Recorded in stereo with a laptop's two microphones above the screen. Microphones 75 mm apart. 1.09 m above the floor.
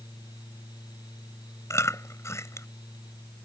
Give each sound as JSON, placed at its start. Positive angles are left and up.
{"t": 0.0, "sound": "a fan", "side_deg": 65}
{"t": 1.7, "sound": "chewing", "side_deg": 40}